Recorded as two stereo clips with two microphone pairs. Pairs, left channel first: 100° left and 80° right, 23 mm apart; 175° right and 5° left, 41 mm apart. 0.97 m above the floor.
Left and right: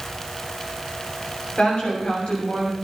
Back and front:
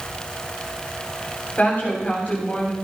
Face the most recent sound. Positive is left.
turn(degrees=135)